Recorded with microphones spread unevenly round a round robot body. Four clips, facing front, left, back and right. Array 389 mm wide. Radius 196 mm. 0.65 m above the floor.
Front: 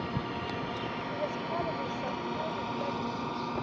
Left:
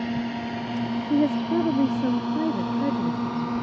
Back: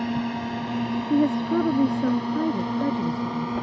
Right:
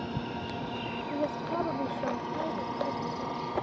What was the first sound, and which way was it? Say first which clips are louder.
A drone: left 7 dB, back 8 dB; 140° left.